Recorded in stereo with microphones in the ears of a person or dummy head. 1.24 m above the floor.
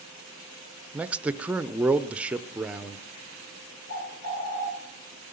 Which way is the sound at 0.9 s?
10° right (ahead or behind).